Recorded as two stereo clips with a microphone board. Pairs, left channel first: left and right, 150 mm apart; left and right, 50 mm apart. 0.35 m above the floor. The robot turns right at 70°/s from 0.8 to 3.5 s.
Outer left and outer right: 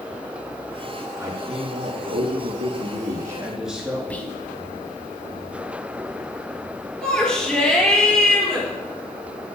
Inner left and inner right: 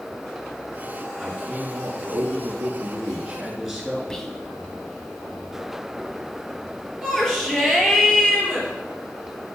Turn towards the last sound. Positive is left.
turn(degrees=5)  # may be behind; listen again after turning